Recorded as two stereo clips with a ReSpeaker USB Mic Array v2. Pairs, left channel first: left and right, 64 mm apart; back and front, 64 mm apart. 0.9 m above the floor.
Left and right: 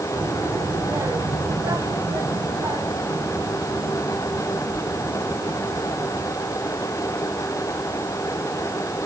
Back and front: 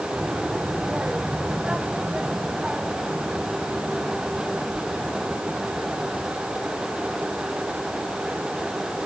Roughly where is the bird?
No bird in this recording.